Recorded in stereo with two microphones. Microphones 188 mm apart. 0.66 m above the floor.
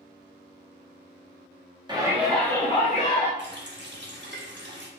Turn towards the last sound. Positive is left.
turn(degrees=-70)  # may be behind; listen again after turning